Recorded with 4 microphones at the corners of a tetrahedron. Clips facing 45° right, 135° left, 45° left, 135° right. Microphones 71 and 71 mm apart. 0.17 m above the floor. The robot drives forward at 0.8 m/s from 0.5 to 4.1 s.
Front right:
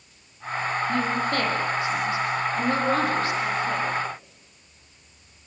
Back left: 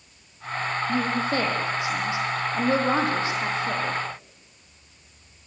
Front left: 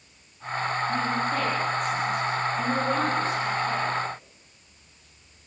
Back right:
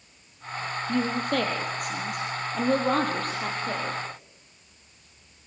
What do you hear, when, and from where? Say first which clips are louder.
0.9 s a woman speaking: back left 1 dB, even; 150° right, 6 m; by 4.0 s 160° right, 8 m